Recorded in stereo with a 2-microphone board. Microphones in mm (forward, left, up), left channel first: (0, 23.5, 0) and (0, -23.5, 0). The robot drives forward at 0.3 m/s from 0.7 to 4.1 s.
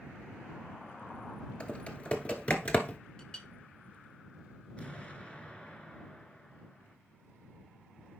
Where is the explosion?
25° left (ahead or behind), 1.1 m.